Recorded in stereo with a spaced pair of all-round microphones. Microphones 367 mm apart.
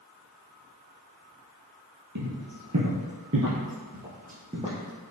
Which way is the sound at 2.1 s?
50° right (ahead or behind).